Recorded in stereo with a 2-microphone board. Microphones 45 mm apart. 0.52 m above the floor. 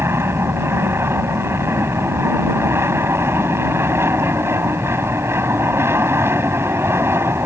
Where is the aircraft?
65° right (ahead or behind).